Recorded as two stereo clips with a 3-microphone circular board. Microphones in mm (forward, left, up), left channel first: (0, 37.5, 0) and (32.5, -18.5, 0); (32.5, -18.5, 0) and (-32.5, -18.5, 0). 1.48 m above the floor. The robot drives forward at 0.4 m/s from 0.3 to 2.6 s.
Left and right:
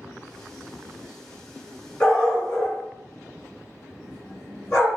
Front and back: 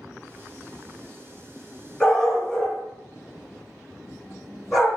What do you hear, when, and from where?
2.0 s a dog barking: 75° left, 1.4 m; by 5.0 s 90° left, 1.4 m